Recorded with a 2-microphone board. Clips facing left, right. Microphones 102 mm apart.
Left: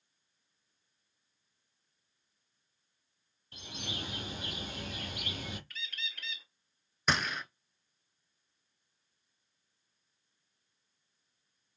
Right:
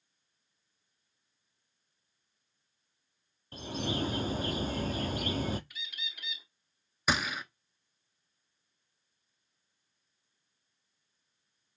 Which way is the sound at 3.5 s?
40° right (ahead or behind).